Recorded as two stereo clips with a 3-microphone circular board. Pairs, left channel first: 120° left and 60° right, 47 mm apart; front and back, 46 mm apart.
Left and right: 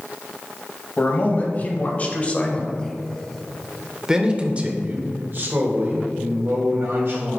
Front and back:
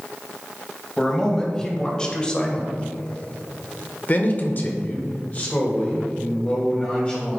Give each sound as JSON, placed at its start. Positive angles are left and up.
{"t": 1.0, "sound": "a man speaking", "azimuth_deg": 80, "distance_m": 1.9}